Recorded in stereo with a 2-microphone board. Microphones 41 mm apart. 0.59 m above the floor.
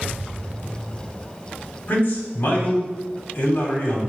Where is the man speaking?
55° left (ahead or behind), 1.3 m.